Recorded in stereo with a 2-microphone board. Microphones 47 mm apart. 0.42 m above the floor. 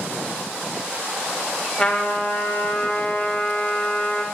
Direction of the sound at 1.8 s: 15° left (ahead or behind).